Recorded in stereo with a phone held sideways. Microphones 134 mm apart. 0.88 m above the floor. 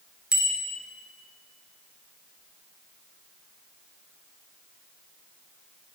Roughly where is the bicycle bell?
Centre.